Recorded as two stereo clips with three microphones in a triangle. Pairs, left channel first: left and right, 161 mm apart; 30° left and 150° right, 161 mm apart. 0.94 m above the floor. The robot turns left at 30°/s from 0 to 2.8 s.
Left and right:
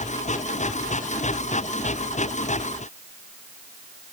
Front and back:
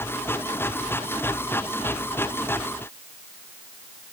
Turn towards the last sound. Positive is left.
No sound to turn to.